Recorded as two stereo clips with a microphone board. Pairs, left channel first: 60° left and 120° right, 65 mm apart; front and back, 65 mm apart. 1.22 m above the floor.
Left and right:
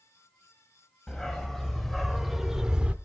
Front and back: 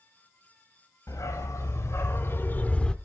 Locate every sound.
1.1 s a dog barking: 20° right, 2 m; by 3.0 s 65° right, 0.9 m